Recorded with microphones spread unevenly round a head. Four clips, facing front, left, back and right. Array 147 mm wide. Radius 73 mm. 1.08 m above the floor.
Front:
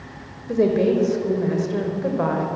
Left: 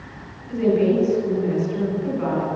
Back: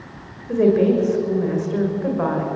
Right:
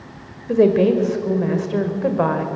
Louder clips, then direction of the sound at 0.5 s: Right 4 dB, back 2 dB; 80° right.